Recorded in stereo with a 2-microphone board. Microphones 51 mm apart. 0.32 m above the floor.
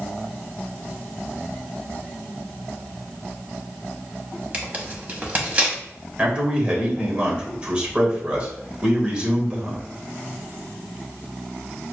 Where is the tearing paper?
30° right (ahead or behind), 1.0 m.